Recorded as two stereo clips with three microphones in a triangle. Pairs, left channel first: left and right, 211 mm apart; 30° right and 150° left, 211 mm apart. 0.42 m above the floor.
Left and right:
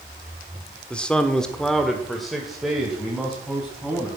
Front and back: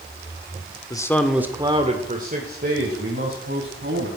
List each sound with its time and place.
0.9 s a man speaking: 10° left, 1.3 m; by 4.1 s straight behind, 4 m